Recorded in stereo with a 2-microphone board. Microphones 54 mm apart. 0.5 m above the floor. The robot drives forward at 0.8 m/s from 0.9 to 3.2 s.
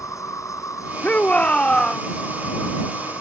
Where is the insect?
75° left (ahead or behind); by 3.2 s 70° left (ahead or behind).